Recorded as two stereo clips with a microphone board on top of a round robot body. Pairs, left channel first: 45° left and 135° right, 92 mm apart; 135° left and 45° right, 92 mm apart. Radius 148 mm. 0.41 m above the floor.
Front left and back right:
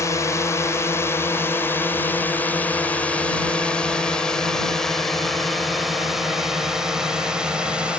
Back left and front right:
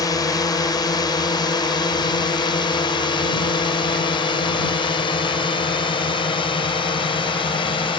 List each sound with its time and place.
0.0 s a drone: 95° left; by 8.0 s 145° left